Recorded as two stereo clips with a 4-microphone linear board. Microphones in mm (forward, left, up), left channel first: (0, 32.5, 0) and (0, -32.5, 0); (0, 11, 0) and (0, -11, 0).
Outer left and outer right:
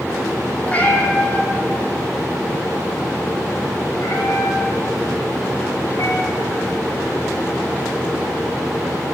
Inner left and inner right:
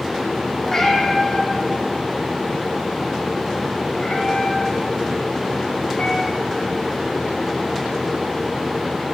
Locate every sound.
0.7 s a cat meowing: 20° left (ahead or behind), 2.5 m; by 6.8 s 85° left, 4 m